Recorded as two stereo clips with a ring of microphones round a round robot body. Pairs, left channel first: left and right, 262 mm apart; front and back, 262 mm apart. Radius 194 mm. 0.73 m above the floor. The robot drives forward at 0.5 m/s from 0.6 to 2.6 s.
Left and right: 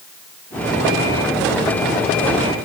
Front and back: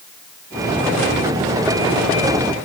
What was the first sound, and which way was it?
Only background noise.